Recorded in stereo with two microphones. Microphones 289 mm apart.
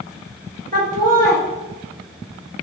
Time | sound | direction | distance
0.7 | laughter | 30° right (ahead or behind) | 1.1 m